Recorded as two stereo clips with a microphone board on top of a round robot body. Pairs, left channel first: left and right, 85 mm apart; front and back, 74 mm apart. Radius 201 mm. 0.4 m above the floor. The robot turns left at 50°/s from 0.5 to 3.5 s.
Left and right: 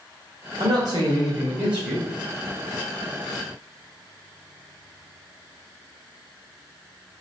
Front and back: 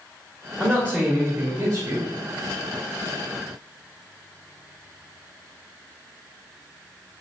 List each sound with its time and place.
0.6 s a man speaking: 100° right, 1.6 m; by 2.1 s 175° right, 1.6 m